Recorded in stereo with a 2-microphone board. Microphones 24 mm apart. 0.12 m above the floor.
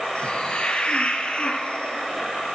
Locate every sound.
0.1 s a hiss: 55° left (ahead or behind), 2.0 m